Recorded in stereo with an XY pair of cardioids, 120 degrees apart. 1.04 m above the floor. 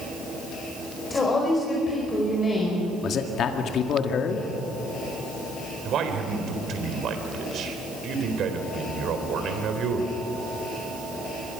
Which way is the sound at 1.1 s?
25° left.